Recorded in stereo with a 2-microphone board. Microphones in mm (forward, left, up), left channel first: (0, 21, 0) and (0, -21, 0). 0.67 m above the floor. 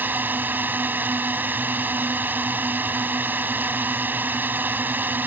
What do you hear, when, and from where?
0.0 s a drone: 50° right (ahead or behind)